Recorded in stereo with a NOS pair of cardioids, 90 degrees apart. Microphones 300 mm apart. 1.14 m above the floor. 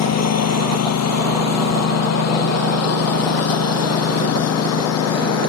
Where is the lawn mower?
65° left; by 5.5 s 60° left.